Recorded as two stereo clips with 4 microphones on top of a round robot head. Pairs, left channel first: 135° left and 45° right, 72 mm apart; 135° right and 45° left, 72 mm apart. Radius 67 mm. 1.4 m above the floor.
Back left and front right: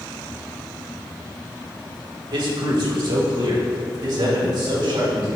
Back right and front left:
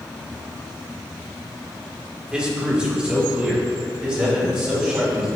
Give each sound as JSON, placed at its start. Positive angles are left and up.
{"t": 2.3, "sound": "a man speaking", "azimuth_deg": -30, "distance_m": 1.5}